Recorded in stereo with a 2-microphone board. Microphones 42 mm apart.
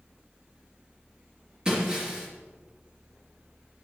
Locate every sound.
1.6 s breaking glass: 15° right (ahead or behind), 3 m